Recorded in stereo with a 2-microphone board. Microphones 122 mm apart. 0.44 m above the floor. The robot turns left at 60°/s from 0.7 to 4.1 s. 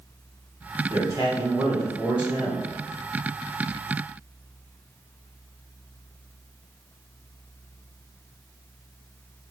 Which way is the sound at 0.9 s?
30° right (ahead or behind).